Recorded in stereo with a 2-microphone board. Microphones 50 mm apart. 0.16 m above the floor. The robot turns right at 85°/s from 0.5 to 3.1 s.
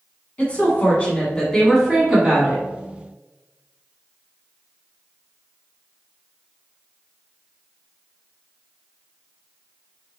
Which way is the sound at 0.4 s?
25° left (ahead or behind).